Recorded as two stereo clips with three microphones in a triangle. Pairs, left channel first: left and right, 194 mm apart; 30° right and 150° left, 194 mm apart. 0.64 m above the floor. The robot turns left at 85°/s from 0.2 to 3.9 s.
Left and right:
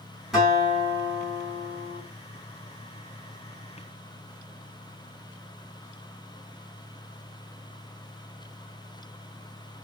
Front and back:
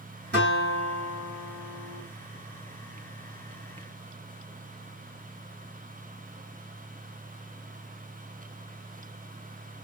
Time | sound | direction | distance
0.3 | a guitar | straight behind | 1.9 m